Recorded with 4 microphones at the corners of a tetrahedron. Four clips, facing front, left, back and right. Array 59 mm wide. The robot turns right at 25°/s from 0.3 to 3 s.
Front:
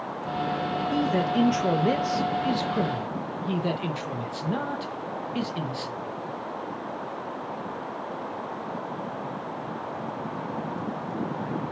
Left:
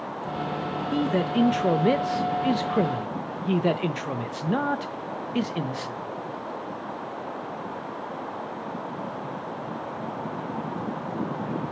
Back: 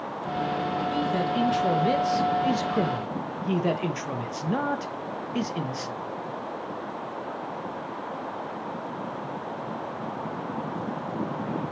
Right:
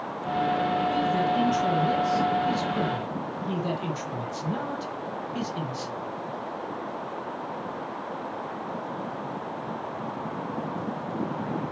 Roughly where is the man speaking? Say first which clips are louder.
Even, front 4 dB; ahead left.